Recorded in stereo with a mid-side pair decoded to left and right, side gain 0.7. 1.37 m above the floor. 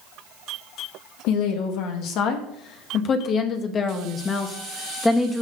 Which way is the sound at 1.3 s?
70° left.